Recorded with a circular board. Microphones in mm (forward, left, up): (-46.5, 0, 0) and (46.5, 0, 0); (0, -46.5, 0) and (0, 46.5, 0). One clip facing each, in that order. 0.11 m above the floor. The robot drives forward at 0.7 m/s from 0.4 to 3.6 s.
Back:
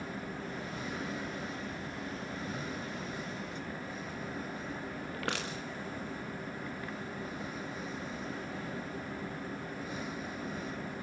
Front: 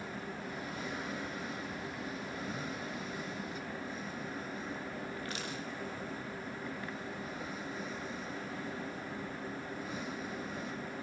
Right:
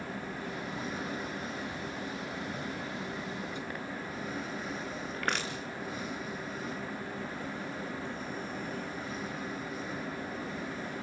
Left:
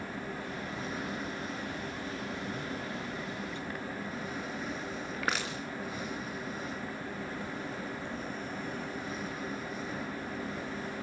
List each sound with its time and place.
5.1 s crushing: 175° left, 4 m